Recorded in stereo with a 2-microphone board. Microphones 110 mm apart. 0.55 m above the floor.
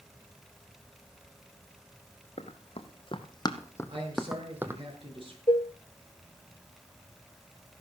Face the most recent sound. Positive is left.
turn(degrees=50)  # may be behind; listen again after turning